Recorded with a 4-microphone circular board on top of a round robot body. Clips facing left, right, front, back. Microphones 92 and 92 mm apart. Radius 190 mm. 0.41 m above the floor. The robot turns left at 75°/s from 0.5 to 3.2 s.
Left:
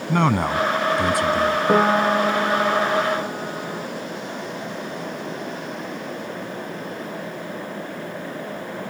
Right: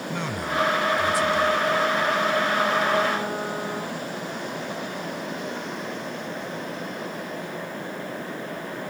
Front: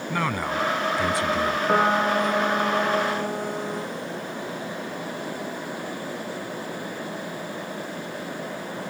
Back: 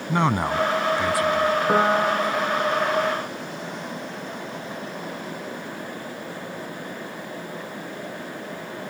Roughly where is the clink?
No clink in this recording.